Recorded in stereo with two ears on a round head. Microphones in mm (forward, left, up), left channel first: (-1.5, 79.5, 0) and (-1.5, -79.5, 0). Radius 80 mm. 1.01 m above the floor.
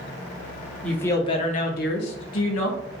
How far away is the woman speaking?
About 0.7 m.